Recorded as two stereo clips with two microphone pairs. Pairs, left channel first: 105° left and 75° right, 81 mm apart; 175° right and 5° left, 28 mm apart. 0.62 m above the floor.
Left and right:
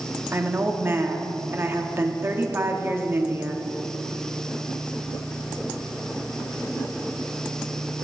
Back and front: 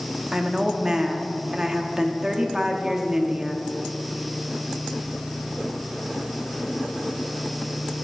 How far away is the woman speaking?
About 1.0 m.